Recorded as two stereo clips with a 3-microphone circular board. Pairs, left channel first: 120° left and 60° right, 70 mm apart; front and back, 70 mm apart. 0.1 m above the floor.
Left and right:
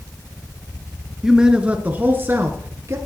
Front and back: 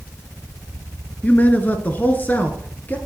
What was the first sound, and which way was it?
A man speaking, 15° left.